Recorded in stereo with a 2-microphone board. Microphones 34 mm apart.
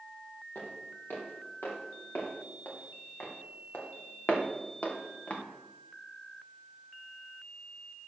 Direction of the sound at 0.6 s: 75° left (ahead or behind).